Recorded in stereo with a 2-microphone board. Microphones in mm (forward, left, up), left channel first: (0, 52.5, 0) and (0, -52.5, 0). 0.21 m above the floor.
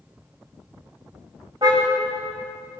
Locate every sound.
1.6 s a car horn: 40° right (ahead or behind), 7.5 m